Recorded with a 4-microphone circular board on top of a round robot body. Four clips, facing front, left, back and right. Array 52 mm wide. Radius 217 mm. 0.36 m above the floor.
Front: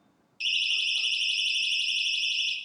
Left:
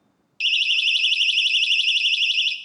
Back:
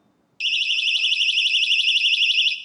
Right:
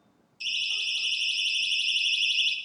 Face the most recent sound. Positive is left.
turn(degrees=165)